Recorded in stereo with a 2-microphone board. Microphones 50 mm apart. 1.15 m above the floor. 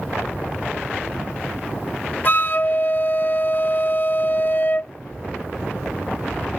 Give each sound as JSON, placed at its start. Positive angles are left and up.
{"t": 2.2, "sound": "a flute", "side_deg": 40}